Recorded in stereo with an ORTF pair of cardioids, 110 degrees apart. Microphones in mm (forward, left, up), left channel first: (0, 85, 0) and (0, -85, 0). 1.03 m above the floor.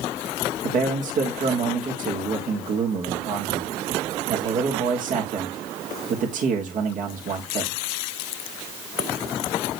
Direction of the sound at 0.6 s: 50° right.